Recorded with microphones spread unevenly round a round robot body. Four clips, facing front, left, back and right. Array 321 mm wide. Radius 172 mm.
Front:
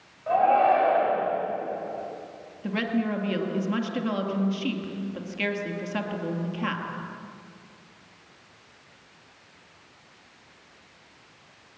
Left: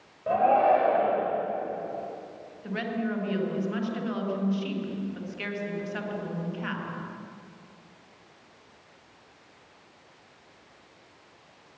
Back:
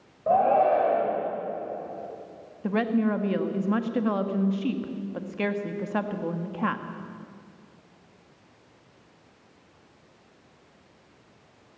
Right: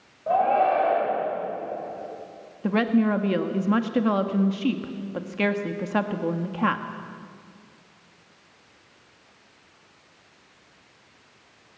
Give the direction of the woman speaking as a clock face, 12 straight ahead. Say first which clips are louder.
Right 9 dB, back 3 dB; 3 o'clock.